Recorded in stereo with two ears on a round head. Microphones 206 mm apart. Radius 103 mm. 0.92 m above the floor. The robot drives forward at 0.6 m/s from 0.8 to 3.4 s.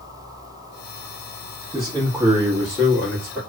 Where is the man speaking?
10° right (ahead or behind), 0.9 m; by 3.4 s 5° right (ahead or behind), 1.8 m.